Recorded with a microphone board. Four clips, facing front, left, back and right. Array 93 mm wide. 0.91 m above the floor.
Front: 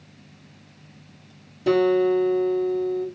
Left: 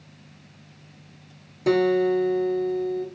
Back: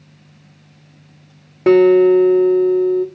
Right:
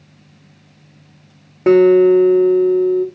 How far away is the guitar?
About 1.5 m.